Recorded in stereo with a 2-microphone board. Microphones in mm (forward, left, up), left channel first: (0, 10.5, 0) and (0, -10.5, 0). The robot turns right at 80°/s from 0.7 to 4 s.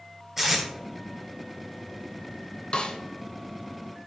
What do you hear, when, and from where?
0.4 s tape being pulled: 15° right (ahead or behind), 4 m
2.7 s a snare drum: 50° left (ahead or behind), 1.1 m; by 3.0 s 55° left (ahead or behind), 1.1 m